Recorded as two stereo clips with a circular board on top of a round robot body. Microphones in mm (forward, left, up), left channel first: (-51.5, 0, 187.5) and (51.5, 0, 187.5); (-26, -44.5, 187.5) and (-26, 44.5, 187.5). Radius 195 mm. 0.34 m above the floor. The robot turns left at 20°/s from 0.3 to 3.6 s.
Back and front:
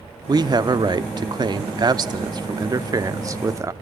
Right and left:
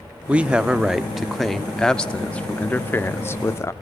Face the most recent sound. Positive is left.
turn(degrees=-45)